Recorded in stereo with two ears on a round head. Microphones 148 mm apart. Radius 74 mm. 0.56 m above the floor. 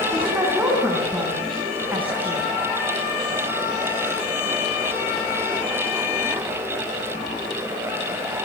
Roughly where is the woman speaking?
Centre.